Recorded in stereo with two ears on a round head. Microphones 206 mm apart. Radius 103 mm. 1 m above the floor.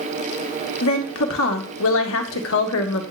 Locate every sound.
0.8 s a woman speaking: 65° left (ahead or behind), 1.8 m